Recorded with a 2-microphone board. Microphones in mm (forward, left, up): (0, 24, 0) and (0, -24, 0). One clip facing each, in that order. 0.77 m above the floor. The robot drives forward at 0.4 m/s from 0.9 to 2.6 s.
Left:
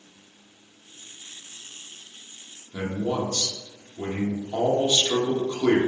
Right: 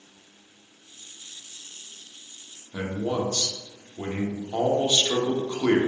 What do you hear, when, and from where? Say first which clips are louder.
2.7 s a man speaking: left 1 dB; 20° right (ahead or behind), 0.7 m